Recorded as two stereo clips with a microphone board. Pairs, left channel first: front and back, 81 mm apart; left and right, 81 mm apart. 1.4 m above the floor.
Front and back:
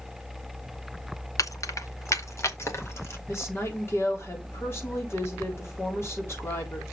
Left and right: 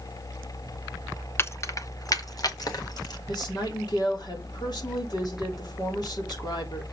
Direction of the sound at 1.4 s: 35° left.